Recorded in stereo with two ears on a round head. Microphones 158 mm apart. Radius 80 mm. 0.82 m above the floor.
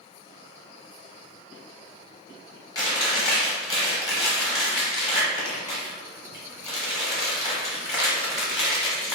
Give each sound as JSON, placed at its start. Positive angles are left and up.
{"t": 2.8, "sound": "chewing", "side_deg": 20, "distance_m": 0.9}